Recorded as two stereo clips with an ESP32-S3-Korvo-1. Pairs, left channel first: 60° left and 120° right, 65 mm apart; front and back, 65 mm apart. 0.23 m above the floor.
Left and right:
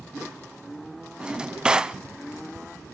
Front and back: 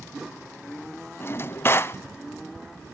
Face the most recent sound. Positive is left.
turn(degrees=-50)